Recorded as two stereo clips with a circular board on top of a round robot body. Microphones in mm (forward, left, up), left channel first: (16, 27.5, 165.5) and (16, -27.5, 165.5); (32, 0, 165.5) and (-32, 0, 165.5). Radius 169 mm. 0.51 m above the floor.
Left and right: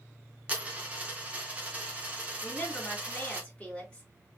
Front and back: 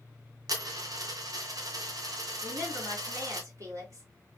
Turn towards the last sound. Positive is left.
turn(degrees=160)